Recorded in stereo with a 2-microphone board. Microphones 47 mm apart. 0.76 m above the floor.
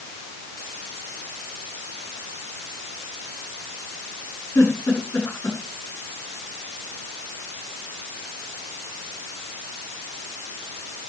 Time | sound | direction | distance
4.5 | a giggle | 85° left | 7 m